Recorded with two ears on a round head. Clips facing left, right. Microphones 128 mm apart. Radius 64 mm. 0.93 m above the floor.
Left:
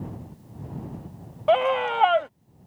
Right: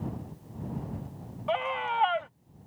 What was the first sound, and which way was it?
A scream, 70° left (ahead or behind).